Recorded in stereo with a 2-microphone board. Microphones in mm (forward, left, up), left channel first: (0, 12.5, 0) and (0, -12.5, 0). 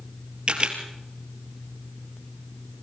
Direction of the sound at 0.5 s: 40° right (ahead or behind).